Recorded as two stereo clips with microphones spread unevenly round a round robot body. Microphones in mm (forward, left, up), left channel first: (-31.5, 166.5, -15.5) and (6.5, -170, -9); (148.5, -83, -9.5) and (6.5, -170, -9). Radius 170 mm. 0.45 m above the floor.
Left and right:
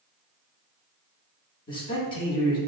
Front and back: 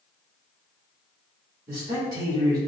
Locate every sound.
1.7 s a man speaking: 145° left, 0.9 m